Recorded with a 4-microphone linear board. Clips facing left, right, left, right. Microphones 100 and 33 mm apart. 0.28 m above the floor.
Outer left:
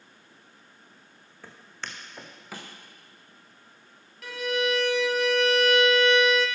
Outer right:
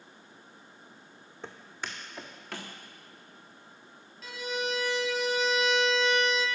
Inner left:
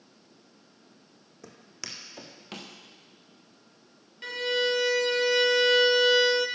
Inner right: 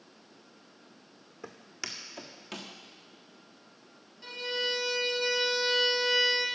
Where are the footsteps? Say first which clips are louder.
Outer right 1 dB, inner right 2 dB; 20° right (ahead or behind), 1.1 m; by 2.7 s 10° left (ahead or behind), 1.9 m.